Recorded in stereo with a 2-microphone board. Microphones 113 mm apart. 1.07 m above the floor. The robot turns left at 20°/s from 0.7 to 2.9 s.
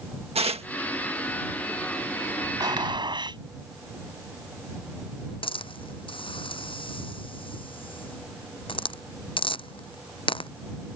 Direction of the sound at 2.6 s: 40° right (ahead or behind).